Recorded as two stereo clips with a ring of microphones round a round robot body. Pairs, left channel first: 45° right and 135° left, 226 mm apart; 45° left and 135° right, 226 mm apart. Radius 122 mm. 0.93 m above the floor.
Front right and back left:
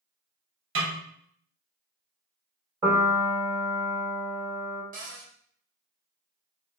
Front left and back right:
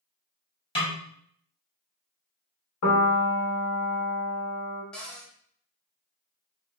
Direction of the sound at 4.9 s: 130° left.